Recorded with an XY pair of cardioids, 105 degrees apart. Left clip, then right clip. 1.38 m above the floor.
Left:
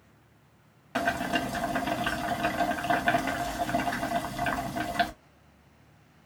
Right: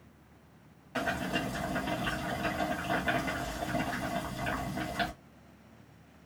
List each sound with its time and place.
0.9 s boiling: 55° left, 1.4 m